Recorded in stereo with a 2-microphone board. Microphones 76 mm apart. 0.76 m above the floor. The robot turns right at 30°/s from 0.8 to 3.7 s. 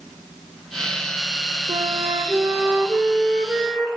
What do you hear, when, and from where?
1.7 s a flute: 65° right, 2 m; by 3.9 s 5° right, 2 m